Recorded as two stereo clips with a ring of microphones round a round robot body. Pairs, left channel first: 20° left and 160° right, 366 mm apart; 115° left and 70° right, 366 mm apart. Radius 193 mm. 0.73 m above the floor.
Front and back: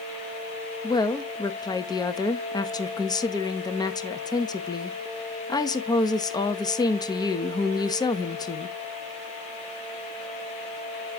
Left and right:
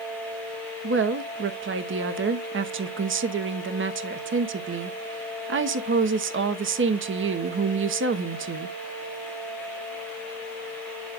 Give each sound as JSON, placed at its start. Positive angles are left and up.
{"t": 0.8, "sound": "a woman speaking", "azimuth_deg": -50, "distance_m": 1.1}